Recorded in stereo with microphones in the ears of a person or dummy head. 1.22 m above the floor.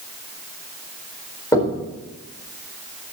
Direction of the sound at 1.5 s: 15° left (ahead or behind).